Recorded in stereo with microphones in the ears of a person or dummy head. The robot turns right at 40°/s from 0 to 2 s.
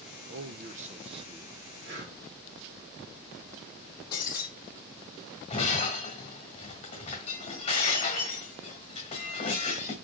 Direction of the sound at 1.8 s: 65° right (ahead or behind).